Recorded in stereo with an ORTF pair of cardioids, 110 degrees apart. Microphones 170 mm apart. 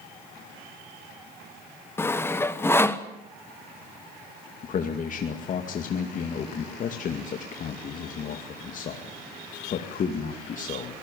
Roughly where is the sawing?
Ahead.